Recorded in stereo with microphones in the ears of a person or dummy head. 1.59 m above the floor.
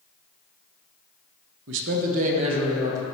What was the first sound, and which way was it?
A man speaking, 75° right (ahead or behind).